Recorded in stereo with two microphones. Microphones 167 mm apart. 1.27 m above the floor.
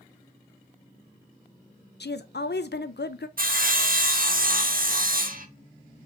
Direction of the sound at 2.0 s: 80° left.